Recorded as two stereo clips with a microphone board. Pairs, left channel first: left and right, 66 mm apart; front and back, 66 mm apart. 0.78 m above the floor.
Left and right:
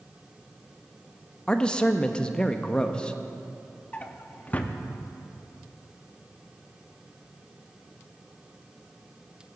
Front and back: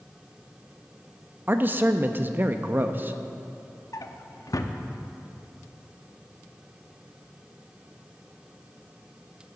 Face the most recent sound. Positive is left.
turn(degrees=25)